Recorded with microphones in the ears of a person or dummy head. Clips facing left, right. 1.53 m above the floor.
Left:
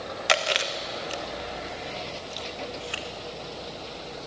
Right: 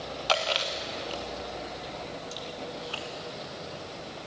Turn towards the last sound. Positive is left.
turn(degrees=30)  # may be behind; listen again after turning